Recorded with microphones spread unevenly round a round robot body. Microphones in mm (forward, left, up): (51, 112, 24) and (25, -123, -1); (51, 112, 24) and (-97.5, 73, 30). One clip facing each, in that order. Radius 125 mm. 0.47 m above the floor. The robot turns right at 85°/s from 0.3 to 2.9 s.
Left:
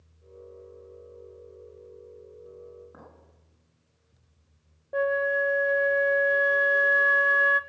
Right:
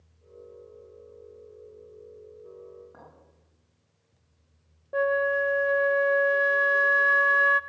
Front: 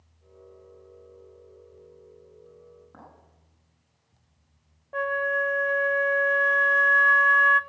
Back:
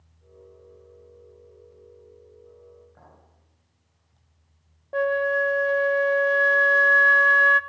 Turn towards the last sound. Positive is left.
turn(degrees=-165)